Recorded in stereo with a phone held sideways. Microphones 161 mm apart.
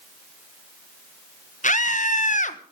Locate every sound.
1.6 s a scream: 50° left (ahead or behind), 1.2 m